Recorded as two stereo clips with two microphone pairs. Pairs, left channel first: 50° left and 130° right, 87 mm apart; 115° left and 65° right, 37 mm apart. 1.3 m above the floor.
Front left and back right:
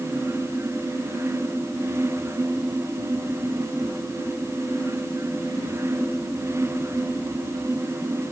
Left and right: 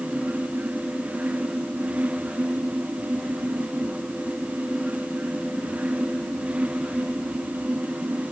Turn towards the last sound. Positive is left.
No sound to turn to.